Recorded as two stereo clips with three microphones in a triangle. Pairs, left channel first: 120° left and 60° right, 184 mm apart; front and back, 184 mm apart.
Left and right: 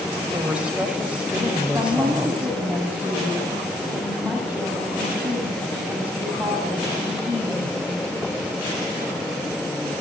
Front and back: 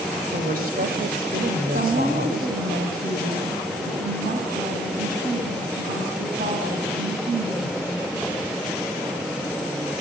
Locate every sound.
0.3 s a woman speaking: 145° right, 4.5 m
1.7 s a woman speaking: 140° right, 8 m